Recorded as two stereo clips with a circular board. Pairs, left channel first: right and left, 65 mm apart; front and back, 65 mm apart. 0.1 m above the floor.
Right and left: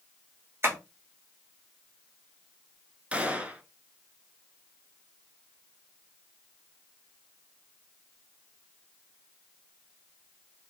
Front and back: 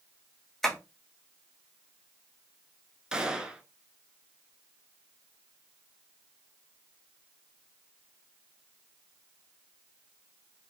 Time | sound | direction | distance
0.6 | tapping | 85° left | 1.2 m
3.1 | a gunshot | 120° left | 0.5 m